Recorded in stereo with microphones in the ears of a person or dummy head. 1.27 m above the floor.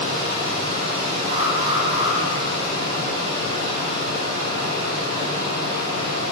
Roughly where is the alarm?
Right.